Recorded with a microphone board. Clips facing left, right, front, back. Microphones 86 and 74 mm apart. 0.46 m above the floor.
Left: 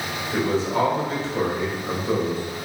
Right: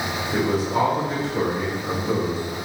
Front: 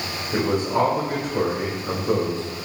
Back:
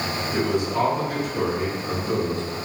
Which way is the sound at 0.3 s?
10° right.